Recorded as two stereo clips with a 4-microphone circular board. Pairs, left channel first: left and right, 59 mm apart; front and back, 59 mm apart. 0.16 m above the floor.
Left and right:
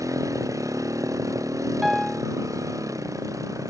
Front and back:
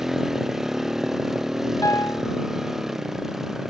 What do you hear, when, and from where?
0.0 s a motorcycle: 100° right
1.8 s a piano: 5° right